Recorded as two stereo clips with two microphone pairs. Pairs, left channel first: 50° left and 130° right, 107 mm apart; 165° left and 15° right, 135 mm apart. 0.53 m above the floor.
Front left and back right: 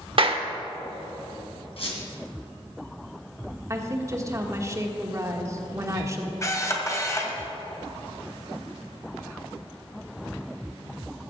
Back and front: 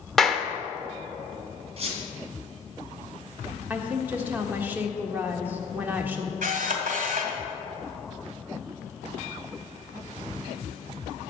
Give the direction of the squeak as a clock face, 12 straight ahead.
11 o'clock.